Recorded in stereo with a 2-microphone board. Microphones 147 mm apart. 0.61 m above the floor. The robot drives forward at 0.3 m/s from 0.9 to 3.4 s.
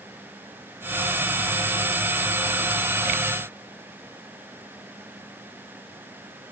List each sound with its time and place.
Only background noise.